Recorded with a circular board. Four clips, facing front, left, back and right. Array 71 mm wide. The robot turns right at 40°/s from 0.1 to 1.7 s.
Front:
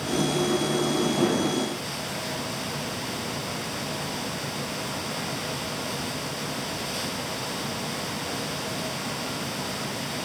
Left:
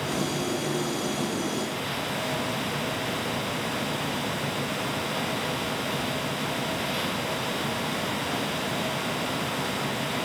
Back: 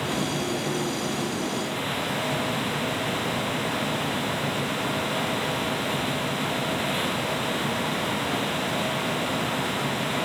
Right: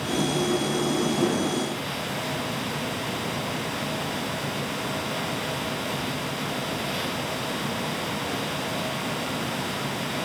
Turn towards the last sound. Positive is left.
No sound to turn to.